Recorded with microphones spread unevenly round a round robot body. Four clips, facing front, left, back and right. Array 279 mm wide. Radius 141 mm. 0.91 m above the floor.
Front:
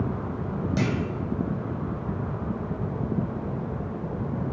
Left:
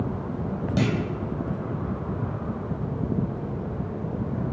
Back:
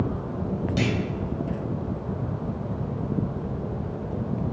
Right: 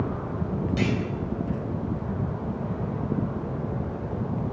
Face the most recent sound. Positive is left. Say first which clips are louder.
# left 3 dB, even
turn(degrees=75)